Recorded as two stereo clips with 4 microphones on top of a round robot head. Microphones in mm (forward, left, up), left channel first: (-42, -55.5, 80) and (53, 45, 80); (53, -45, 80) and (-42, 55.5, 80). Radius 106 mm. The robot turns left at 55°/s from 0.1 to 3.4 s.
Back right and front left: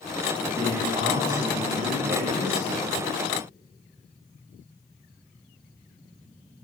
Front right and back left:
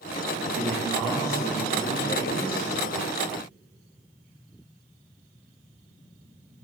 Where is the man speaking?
105° left, 2.5 m; by 2.7 s 15° right, 2.5 m.